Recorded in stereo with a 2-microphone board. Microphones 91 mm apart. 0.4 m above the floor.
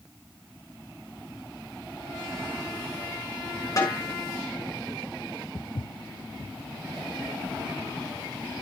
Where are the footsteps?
50° left (ahead or behind), 1.0 m.